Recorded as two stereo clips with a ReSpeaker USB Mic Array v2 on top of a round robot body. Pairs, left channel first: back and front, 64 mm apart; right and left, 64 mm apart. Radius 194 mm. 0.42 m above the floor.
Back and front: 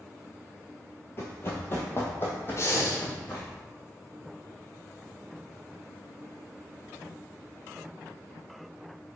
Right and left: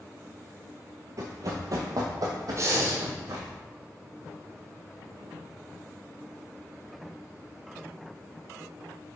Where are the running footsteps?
125° left, 0.6 m; by 3.5 s 120° left, 2.5 m.